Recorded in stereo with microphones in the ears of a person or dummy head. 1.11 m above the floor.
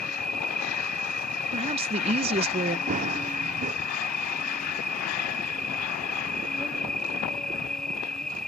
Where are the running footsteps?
45° right (ahead or behind).